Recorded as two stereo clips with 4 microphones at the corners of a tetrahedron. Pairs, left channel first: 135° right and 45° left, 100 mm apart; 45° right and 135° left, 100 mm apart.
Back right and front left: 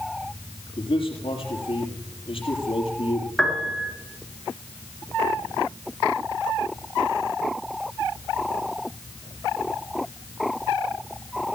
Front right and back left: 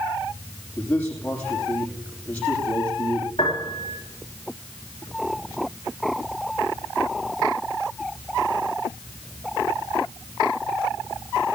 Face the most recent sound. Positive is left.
turn(degrees=-50)